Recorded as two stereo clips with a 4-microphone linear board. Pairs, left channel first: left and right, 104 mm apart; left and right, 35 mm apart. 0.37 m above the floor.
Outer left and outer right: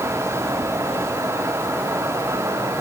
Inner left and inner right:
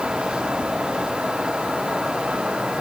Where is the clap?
I don't hear a clap.